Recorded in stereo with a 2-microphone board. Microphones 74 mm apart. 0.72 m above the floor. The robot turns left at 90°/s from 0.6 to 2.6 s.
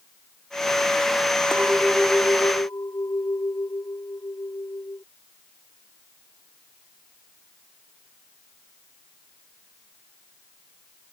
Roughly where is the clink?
Behind right.